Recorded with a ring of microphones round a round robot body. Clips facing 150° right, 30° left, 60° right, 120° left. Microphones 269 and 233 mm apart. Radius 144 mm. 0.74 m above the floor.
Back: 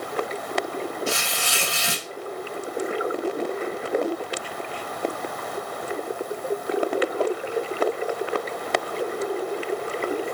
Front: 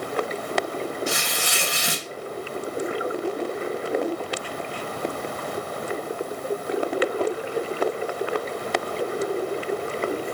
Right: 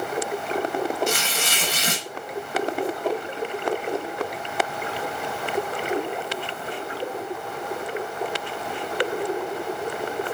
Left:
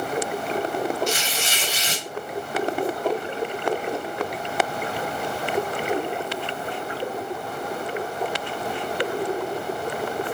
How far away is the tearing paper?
About 0.6 m.